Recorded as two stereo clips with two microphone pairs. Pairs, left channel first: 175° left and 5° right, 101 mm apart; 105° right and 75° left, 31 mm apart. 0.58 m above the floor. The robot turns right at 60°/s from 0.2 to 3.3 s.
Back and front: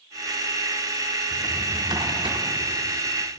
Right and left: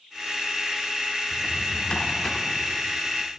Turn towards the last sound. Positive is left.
turn(degrees=35)